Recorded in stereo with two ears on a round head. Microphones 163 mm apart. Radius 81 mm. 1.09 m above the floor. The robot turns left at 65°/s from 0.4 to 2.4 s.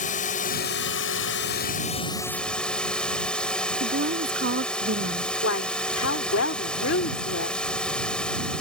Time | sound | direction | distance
0.0 | a drone | 135° left | ?
3.8 | a woman speaking | 65° right (ahead or behind) | ?
5.4 | a woman speaking | 85° left | ?